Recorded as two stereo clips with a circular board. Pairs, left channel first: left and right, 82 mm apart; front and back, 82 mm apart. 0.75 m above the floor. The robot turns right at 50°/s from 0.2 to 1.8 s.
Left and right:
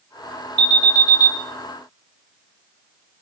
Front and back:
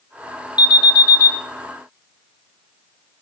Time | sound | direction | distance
0.6 | an alarm | 20° left | 2 m